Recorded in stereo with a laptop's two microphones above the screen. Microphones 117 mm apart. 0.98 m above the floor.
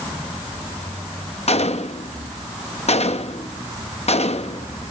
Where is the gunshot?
65° left (ahead or behind), 0.7 m.